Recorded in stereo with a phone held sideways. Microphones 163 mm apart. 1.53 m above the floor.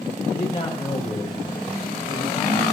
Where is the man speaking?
35° left (ahead or behind), 5.5 m.